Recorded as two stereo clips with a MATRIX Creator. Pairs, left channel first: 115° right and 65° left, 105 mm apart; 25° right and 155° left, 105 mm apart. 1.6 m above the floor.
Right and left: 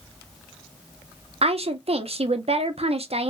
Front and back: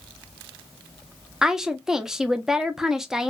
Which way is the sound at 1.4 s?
75° left.